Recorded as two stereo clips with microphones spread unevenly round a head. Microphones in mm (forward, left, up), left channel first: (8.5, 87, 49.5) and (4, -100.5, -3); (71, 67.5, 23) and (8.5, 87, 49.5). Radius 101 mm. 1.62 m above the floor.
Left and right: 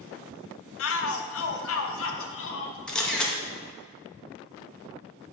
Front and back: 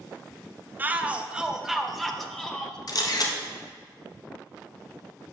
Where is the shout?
105° left, 1.1 m; by 2.8 s 65° left, 1.8 m.